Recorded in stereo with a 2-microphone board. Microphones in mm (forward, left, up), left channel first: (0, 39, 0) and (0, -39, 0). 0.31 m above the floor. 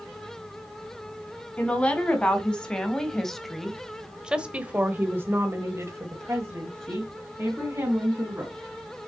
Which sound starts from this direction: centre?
A woman speaking, at 1.6 s.